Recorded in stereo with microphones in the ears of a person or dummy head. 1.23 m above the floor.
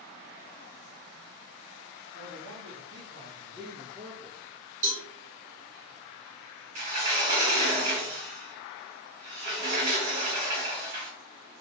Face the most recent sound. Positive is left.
turn(degrees=-40)  # may be behind; listen again after turning